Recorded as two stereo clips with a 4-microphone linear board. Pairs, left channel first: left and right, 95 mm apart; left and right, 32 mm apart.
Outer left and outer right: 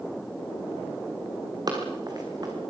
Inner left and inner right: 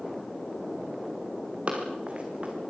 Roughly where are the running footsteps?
Right.